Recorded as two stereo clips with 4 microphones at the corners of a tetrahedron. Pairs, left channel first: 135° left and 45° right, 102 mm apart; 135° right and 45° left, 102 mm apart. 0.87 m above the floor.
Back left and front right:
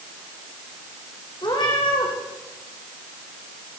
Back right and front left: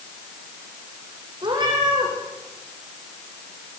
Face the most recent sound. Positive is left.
turn(degrees=90)